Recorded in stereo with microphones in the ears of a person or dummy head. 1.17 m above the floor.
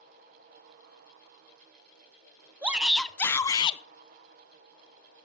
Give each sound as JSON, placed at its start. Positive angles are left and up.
{"t": 2.6, "sound": "a shout", "side_deg": -10, "distance_m": 0.8}